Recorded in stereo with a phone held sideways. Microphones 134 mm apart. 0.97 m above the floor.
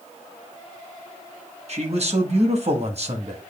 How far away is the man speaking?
About 1.2 m.